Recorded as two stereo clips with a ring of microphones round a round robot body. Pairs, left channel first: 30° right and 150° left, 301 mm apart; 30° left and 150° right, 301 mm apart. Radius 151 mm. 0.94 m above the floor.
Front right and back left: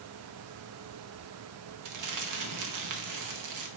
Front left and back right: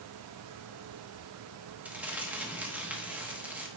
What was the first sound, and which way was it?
Crumpling, 125° left.